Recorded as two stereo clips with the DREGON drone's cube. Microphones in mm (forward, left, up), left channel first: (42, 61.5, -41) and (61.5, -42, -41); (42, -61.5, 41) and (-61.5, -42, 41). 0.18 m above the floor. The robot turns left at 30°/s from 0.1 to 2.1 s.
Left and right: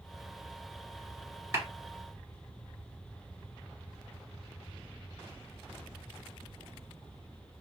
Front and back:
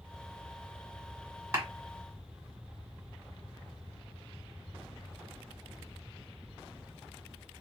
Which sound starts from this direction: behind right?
A clap, at 1.5 s.